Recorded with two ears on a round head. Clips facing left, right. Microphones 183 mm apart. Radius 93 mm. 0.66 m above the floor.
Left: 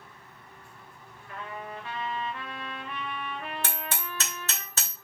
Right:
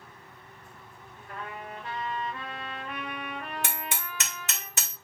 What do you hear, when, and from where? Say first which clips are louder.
1.3 s a trumpet: left 1 dB; 40° right (ahead or behind), 2 m
3.6 s hammering: left 1 dB; 15° right (ahead or behind), 2.5 m